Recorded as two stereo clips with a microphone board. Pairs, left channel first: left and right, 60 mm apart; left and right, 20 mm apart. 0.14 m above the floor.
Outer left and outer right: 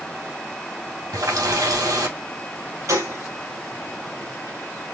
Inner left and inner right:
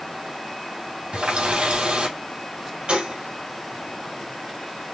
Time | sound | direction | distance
1.1 | a running tap | 75° right (ahead or behind) | 3 m
2.9 | a gunshot | 60° right (ahead or behind) | 3.5 m